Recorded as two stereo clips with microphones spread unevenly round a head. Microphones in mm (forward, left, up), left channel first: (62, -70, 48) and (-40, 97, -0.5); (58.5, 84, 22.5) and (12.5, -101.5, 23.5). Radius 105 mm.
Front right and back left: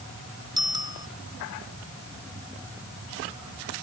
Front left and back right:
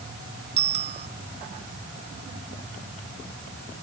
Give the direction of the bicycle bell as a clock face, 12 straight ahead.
6 o'clock.